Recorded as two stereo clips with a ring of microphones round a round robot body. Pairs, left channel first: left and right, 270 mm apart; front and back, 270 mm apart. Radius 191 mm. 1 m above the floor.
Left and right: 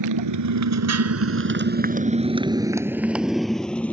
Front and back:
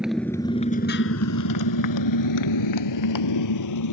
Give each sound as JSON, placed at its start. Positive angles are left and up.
{"t": 0.0, "sound": "a motorcycle", "azimuth_deg": -90}